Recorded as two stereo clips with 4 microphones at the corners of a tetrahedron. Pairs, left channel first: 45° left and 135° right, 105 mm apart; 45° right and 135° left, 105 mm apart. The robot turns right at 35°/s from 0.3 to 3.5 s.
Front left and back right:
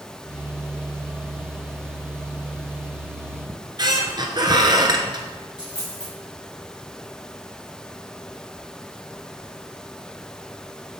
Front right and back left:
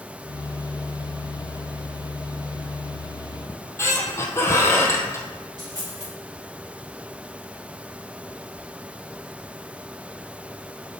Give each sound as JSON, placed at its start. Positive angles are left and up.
{"t": 3.5, "sound": "a squeak", "azimuth_deg": -100, "distance_m": 0.9}
{"t": 5.6, "sound": "a dropped coin", "azimuth_deg": 85, "distance_m": 3.0}